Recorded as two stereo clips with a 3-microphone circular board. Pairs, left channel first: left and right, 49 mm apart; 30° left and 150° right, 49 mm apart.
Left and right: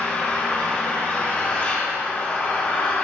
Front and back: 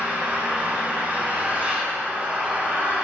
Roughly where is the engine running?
Behind left.